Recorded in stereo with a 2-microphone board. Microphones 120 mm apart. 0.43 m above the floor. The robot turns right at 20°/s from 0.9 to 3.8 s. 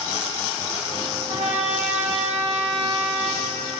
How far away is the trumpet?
About 3 m.